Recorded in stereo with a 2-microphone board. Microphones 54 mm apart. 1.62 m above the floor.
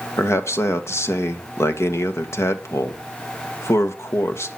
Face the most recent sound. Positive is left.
turn(degrees=60)  # may be behind; listen again after turning